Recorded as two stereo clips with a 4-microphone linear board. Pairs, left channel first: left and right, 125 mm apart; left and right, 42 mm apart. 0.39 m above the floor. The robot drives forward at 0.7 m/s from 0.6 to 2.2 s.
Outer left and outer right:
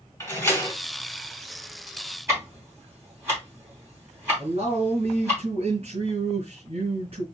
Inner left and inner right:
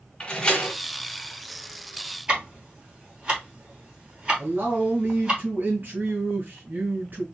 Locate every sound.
0.2 s a door slam: 25° left (ahead or behind), 2 m
2.3 s ticking: 20° right (ahead or behind), 3 m
4.4 s a man speaking: 55° right (ahead or behind), 2 m